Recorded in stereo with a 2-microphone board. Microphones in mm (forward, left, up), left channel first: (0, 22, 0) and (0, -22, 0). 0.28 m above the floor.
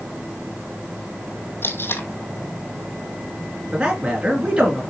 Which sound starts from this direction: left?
Tape being pulled, at 1.6 s.